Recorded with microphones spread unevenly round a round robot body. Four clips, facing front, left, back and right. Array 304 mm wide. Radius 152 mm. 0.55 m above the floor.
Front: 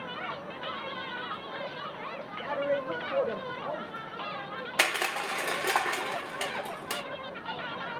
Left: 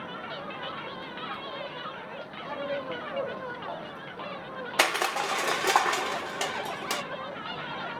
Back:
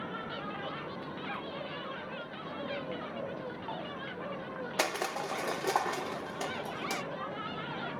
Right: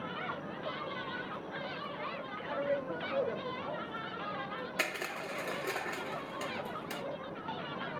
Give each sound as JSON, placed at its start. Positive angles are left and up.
{"t": 2.4, "sound": "a man speaking", "azimuth_deg": -5, "distance_m": 1.9}
{"t": 4.8, "sound": "crushing", "azimuth_deg": 80, "distance_m": 0.8}